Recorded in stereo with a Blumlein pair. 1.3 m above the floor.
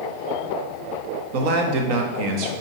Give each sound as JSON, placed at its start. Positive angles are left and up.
{"t": 1.3, "sound": "a man speaking", "azimuth_deg": -45, "distance_m": 1.2}